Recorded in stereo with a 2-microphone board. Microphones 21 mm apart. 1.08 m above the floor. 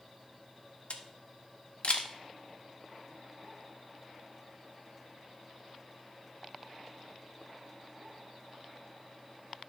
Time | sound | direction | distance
0.9 | a camera shutter | 65° left (ahead or behind) | 0.9 m